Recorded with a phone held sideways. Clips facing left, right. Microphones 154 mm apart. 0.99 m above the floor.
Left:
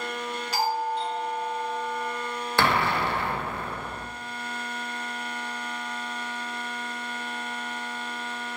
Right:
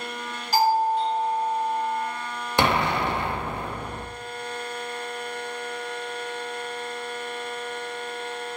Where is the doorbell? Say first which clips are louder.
Right 7 dB; 40° right (ahead or behind), 2 m.